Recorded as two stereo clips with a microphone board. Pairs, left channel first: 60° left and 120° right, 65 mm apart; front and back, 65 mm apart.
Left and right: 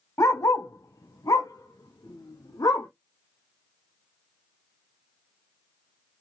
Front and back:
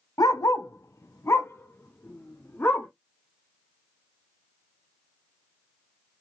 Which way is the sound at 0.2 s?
20° left.